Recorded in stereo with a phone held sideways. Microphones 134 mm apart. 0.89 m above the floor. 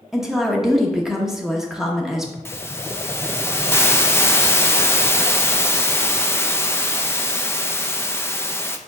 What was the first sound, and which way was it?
A woman speaking, 5° right (ahead or behind).